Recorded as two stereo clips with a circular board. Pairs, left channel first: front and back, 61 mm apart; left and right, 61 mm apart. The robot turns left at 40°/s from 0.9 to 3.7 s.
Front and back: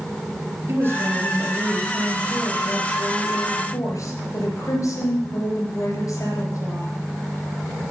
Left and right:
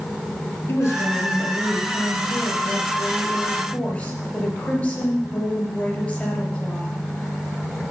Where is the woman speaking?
140° left, 3.5 m; by 6.9 s 25° left, 3.5 m.